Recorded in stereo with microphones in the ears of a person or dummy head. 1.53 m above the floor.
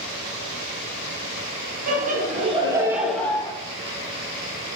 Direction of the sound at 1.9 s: 50° right (ahead or behind).